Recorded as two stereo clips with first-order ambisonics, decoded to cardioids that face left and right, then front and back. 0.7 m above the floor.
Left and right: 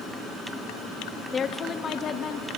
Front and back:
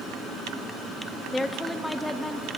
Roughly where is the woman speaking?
Left.